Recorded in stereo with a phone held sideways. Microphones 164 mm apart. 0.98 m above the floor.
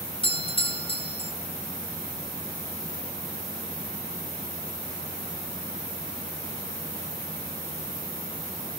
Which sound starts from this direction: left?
A doorbell, at 0.2 s.